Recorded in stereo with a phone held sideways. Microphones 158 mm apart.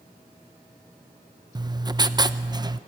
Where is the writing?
25° right (ahead or behind), 0.5 m.